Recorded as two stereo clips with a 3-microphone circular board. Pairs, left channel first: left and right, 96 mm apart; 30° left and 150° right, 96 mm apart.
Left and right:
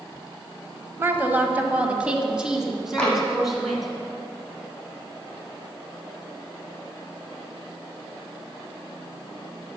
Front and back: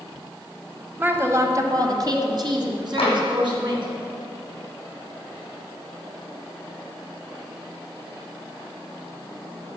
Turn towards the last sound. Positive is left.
turn(degrees=10)